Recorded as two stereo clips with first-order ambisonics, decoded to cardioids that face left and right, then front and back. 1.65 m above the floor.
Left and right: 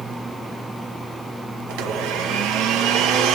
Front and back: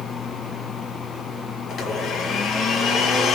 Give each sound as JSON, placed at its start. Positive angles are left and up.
{"t": 1.7, "sound": "a blender", "azimuth_deg": -60, "distance_m": 1.7}